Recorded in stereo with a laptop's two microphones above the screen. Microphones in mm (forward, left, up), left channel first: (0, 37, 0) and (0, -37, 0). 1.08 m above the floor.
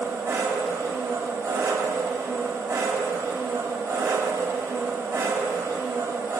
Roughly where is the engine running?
Right.